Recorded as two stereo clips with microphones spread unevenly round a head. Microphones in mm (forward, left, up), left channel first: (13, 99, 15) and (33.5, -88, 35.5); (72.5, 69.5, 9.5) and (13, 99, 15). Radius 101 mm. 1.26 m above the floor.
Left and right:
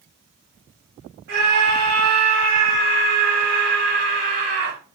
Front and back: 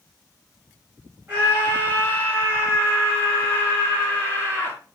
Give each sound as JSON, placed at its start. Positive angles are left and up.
{"t": 1.3, "sound": "a scream", "azimuth_deg": -125, "distance_m": 3.5}